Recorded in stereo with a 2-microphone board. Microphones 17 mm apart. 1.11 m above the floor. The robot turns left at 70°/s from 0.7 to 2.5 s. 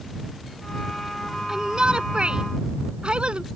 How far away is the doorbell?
No doorbell in this recording.